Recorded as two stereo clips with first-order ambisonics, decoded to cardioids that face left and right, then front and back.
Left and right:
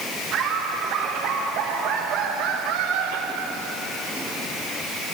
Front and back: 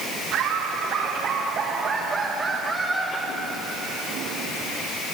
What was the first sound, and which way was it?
Laughter, 140° right.